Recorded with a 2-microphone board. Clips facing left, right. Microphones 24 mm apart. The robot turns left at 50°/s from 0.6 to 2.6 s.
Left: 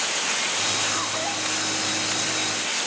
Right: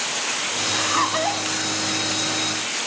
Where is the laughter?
125° right; by 1.5 s 165° right.